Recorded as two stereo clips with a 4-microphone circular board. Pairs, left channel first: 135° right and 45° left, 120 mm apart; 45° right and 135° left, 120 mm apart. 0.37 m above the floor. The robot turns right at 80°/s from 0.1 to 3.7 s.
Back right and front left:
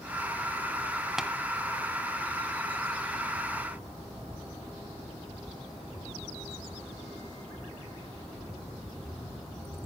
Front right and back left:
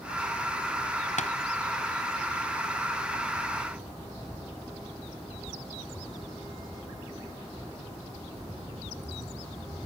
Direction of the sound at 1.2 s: 40° right.